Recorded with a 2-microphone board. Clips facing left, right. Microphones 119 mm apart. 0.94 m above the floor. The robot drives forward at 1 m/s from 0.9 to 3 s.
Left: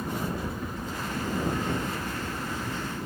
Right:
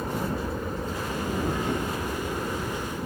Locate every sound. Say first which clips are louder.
0.0 s an aircraft: right 2 dB; 55° right (ahead or behind)